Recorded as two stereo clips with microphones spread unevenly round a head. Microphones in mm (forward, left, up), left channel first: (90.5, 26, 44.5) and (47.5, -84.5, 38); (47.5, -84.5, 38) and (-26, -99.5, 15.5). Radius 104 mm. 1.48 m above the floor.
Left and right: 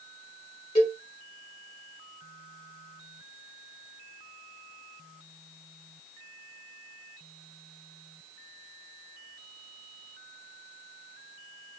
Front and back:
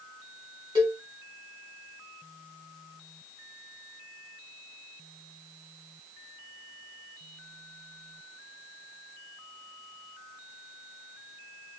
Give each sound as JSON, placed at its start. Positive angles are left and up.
{"t": 0.8, "sound": "a cowbell", "azimuth_deg": 130, "distance_m": 1.1}